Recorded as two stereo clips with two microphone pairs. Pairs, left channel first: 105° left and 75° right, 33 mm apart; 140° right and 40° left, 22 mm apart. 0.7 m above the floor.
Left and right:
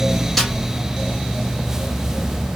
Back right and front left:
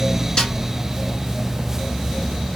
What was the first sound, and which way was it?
A snare drum, 165° right.